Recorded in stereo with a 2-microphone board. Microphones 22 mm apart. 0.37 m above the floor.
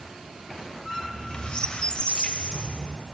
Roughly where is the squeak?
Left.